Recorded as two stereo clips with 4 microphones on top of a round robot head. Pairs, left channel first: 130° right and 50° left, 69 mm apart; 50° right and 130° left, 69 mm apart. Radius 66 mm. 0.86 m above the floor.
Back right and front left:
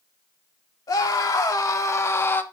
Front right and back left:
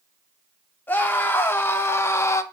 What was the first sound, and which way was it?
A scream, 110° right.